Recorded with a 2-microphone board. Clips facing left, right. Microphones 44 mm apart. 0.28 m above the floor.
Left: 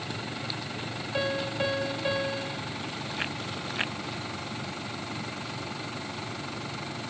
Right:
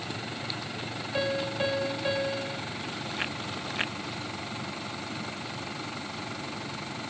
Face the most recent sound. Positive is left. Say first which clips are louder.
# even
turn(degrees=5)  # may be behind; listen again after turning